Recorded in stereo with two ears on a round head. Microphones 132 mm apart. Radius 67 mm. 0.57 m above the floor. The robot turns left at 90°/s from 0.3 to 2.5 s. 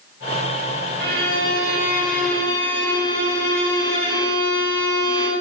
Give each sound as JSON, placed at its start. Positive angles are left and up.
{"t": 1.0, "sound": "a violin", "azimuth_deg": -70, "distance_m": 4.0}